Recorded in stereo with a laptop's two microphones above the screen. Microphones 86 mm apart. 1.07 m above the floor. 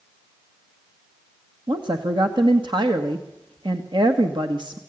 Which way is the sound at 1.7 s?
65° right (ahead or behind).